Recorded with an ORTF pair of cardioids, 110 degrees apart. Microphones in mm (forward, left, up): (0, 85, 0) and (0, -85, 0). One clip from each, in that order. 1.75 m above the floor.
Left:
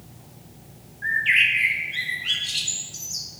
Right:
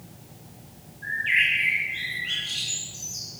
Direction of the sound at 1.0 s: 65° left.